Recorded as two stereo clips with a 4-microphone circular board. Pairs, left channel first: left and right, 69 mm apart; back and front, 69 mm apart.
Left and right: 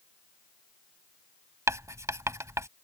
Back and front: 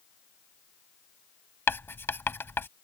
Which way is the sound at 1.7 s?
130° right.